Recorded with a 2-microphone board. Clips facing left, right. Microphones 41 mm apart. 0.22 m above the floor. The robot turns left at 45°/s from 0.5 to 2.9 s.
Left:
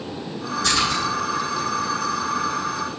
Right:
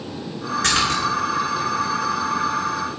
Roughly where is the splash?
Right.